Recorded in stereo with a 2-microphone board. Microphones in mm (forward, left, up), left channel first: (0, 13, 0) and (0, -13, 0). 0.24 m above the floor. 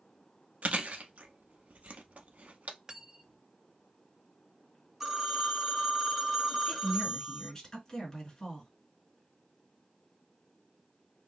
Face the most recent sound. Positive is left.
turn(degrees=25)  # may be behind; listen again after turning